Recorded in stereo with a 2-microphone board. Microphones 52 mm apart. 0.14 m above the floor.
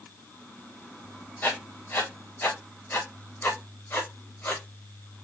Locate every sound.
1.4 s writing: 40° left (ahead or behind), 4 m